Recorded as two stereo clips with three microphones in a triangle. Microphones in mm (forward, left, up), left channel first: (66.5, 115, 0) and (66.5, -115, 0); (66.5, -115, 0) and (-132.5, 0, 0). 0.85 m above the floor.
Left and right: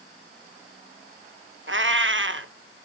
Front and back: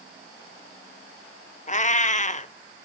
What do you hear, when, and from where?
1.7 s a cat meowing: 85° right, 0.5 m